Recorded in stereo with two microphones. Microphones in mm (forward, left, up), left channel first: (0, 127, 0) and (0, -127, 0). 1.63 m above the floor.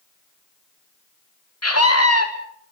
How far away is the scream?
About 2.5 m.